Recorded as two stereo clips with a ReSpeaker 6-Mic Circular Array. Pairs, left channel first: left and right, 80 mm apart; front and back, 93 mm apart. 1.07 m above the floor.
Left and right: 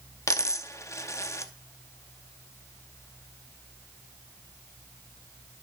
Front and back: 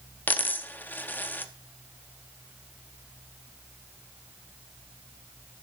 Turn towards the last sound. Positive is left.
turn(degrees=60)